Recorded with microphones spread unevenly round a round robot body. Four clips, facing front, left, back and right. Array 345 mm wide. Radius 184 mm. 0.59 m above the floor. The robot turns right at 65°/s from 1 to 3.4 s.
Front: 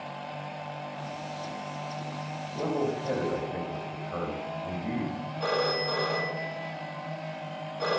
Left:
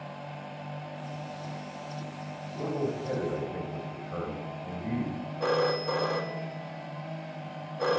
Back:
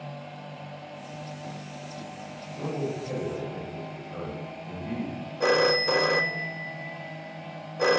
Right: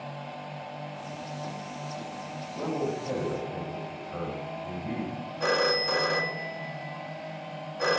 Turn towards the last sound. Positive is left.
turn(degrees=-175)